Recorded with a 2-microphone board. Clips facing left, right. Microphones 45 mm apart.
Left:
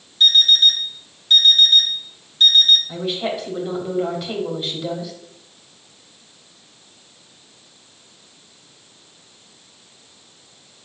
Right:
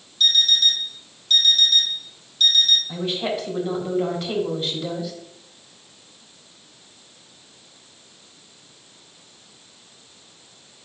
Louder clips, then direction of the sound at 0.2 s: Left 4 dB; 30° left (ahead or behind).